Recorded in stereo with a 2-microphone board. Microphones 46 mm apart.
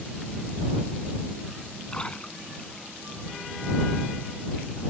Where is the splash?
25° left (ahead or behind).